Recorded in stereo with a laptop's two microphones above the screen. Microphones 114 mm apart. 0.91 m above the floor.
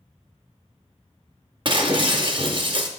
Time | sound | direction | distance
1.6 | breaking glass | 45° right (ahead or behind) | 0.6 m